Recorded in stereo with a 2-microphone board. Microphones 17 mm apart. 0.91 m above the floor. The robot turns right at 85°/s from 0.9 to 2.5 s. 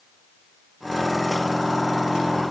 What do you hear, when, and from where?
Only background noise.